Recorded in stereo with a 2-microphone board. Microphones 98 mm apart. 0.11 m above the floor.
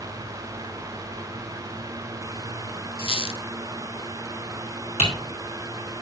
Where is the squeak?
65° left (ahead or behind), 0.6 m.